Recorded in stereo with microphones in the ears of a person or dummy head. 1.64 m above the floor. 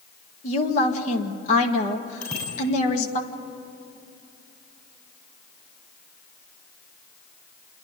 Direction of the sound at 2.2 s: 25° left (ahead or behind).